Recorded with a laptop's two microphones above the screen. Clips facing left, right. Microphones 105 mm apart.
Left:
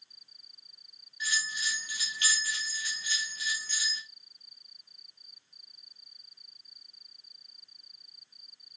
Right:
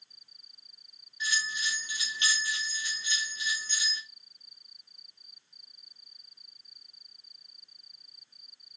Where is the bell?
25° right (ahead or behind), 1.7 m.